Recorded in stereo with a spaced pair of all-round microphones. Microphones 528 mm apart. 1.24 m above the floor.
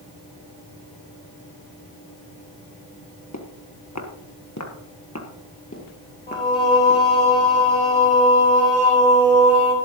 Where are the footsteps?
30° left (ahead or behind), 1.5 m; by 7.0 s 20° left (ahead or behind), 2.5 m.